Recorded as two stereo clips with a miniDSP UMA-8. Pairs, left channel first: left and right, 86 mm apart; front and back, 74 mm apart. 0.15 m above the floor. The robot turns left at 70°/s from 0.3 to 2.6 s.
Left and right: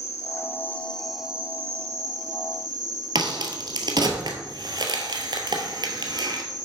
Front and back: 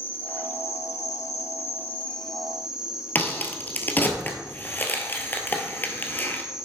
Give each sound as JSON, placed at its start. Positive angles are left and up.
{"t": 0.0, "sound": "an insect", "azimuth_deg": 55, "distance_m": 0.8}
{"t": 3.1, "sound": "a crack", "azimuth_deg": -65, "distance_m": 1.3}